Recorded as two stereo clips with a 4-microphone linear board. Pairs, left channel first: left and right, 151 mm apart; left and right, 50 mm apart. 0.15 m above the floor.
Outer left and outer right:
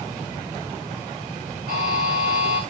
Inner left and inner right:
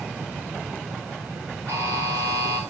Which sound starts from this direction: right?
A buzzer, at 1.7 s.